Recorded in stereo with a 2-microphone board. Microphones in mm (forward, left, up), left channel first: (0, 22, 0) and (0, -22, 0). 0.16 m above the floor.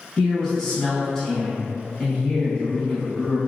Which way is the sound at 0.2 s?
15° left (ahead or behind).